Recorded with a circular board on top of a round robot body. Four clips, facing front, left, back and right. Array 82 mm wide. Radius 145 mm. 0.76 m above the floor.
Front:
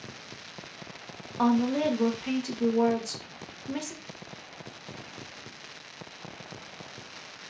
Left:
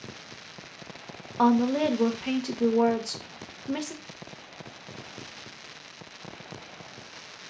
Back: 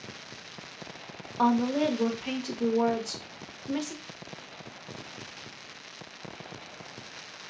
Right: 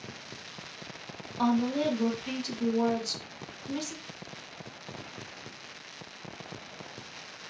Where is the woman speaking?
95° left, 0.8 m.